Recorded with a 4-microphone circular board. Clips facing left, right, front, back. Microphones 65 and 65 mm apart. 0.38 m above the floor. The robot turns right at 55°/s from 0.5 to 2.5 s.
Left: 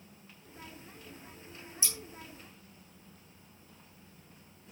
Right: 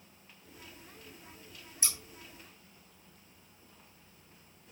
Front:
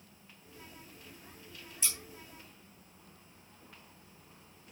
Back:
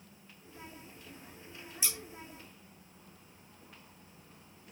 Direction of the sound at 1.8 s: 95° right.